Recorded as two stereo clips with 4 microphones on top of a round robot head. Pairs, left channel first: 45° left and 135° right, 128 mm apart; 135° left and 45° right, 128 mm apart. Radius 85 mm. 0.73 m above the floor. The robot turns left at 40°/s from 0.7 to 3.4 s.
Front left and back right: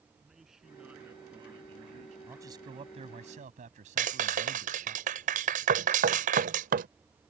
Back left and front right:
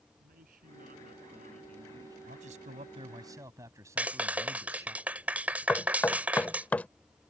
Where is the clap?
125° right.